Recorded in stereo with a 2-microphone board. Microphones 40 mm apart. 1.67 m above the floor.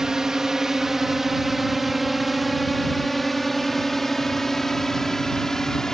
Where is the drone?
10° right (ahead or behind); by 6.0 s 15° left (ahead or behind).